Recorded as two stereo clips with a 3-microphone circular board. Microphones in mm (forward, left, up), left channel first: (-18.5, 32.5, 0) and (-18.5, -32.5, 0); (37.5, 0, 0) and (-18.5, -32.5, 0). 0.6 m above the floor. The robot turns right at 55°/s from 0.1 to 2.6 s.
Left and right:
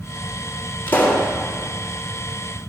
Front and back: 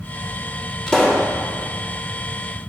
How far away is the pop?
About 1.3 m.